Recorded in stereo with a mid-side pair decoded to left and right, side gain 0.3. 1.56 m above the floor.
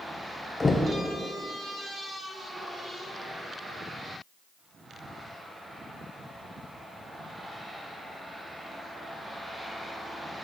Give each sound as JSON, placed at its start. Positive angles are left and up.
{"t": 0.6, "sound": "knocking", "azimuth_deg": 40, "distance_m": 0.8}